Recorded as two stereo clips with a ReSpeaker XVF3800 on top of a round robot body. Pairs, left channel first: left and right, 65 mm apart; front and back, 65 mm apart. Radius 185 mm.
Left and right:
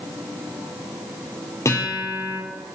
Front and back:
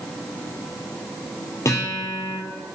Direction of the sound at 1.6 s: 50° left.